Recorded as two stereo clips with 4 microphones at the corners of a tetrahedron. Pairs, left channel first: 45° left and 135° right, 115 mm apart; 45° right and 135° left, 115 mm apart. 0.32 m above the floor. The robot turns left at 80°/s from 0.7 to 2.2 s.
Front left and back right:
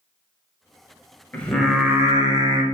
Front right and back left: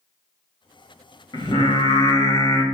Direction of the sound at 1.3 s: 25° right.